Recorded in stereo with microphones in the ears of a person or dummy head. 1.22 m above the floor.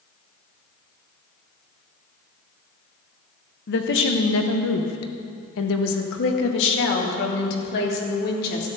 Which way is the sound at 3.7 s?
45° left (ahead or behind).